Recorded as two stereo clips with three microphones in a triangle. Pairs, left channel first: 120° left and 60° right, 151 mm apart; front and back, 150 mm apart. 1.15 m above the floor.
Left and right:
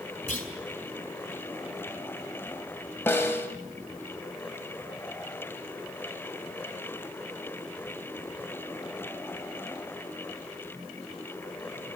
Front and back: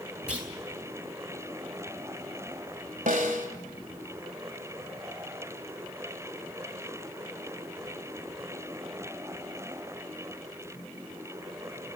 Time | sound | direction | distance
0.3 | a clunk | 95° left | 4 m
3.1 | a snare drum | 165° right | 2 m